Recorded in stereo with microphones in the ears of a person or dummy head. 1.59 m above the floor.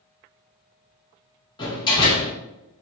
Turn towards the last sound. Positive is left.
turn(degrees=25)  # may be behind; listen again after turning